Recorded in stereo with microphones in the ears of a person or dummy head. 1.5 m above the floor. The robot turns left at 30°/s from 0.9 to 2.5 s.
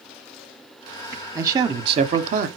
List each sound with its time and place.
1.4 s a man speaking: 15° right, 0.6 m; by 2.5 s 45° right, 0.6 m